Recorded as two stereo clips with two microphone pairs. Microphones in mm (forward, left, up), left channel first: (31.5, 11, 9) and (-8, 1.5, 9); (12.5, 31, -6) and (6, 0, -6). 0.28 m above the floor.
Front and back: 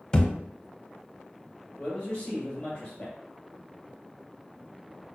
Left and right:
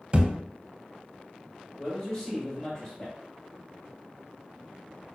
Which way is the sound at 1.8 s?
45° left.